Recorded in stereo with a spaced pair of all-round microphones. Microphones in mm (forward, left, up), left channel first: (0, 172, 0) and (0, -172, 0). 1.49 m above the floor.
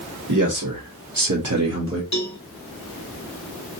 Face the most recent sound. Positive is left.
turn(degrees=50)  # may be behind; listen again after turning